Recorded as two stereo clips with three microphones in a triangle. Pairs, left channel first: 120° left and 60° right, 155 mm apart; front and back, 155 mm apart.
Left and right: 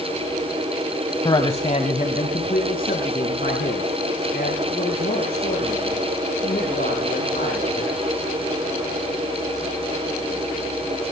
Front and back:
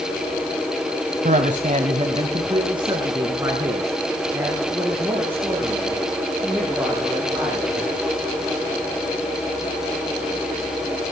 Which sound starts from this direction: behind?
A man speaking, at 1.2 s.